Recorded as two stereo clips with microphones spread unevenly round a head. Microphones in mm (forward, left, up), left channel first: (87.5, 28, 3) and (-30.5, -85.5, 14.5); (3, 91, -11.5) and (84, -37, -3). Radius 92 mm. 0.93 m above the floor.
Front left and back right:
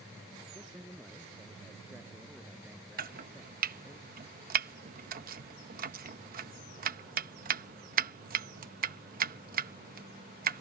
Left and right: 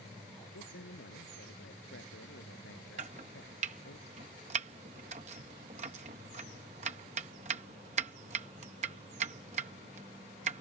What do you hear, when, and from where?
0.5 s a man speaking: 140° left
3.0 s chopping: 110° right